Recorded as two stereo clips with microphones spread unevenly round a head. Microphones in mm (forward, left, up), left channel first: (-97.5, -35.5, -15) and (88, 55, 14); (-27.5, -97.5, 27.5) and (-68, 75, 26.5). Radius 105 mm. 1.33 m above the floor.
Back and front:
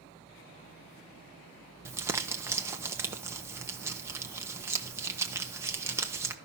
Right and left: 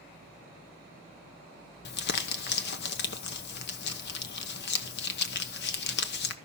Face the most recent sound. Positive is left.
turn(degrees=-55)